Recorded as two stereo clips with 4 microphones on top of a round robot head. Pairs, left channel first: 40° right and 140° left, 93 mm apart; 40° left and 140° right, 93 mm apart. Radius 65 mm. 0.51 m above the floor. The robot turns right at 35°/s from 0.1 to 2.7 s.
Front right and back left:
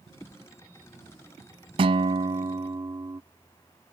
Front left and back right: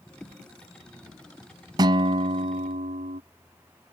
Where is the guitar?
170° left; by 3.2 s 155° right.